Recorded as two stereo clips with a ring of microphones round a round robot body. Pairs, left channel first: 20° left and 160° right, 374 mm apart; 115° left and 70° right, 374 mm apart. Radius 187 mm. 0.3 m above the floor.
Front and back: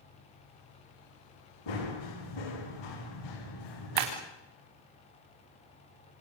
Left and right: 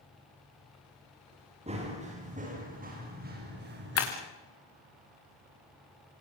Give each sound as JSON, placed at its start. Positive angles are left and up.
{"t": 1.7, "sound": "running footsteps", "azimuth_deg": 5, "distance_m": 8.5}
{"t": 4.0, "sound": "breaking glass", "azimuth_deg": 170, "distance_m": 4.0}